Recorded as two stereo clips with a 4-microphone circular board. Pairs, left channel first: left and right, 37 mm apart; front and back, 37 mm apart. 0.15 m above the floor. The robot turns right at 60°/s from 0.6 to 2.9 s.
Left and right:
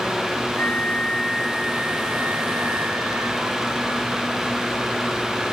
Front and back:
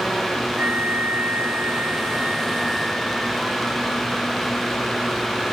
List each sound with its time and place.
0.6 s a flute: 135° left; by 3.6 s 85° right